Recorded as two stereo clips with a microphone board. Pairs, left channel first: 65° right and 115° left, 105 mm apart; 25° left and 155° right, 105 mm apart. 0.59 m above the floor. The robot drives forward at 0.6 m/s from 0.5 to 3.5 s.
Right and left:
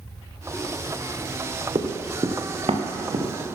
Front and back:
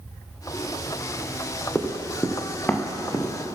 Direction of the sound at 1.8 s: 95° left.